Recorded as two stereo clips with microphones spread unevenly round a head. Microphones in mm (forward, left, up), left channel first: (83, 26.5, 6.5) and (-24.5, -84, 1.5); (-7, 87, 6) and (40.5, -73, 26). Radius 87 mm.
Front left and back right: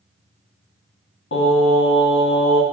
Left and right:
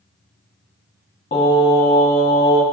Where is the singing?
55° left, 1.9 m.